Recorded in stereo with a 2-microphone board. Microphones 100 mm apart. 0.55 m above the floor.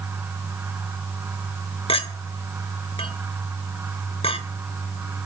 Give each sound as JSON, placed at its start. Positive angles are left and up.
{"t": 1.9, "sound": "a clink", "side_deg": 65, "distance_m": 1.6}